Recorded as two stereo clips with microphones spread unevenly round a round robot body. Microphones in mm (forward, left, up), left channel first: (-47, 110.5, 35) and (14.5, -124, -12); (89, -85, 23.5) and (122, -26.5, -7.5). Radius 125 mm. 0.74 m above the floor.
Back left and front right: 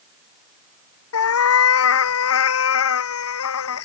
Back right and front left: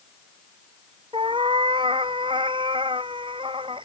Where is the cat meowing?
130° left.